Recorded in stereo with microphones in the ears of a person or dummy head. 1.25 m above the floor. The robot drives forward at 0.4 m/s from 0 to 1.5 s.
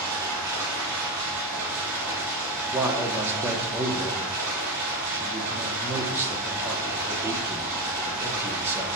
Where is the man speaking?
15° right (ahead or behind), 0.9 m.